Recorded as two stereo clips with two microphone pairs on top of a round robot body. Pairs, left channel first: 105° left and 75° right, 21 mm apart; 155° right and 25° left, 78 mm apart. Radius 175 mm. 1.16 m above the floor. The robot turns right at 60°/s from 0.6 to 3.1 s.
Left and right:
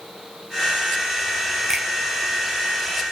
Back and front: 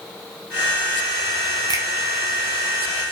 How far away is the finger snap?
About 0.6 m.